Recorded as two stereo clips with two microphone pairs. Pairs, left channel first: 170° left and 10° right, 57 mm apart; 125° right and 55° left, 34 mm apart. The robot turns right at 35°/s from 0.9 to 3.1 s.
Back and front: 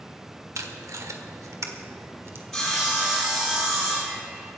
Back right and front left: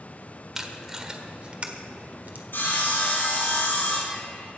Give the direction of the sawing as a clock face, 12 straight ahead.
3 o'clock.